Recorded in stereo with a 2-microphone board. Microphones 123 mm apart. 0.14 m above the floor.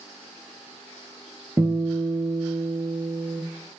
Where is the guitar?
20° right (ahead or behind), 1.3 m.